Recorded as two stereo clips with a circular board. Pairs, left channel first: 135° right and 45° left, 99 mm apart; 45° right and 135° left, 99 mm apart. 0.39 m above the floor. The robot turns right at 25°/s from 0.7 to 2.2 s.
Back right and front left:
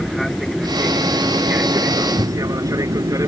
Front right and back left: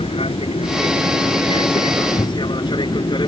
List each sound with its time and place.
0.0 s an aircraft: 45° right; by 3.3 s 10° right